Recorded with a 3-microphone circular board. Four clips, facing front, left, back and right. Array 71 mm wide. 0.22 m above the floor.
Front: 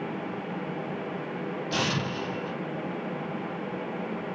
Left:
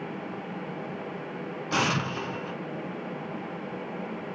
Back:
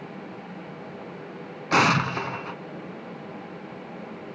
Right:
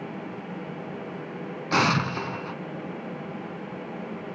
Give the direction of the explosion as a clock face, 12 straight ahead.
5 o'clock.